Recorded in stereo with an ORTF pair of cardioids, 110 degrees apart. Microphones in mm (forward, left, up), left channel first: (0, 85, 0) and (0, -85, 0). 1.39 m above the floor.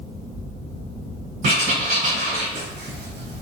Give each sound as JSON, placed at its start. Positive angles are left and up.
{"t": 1.4, "sound": "writing", "azimuth_deg": -55, "distance_m": 1.1}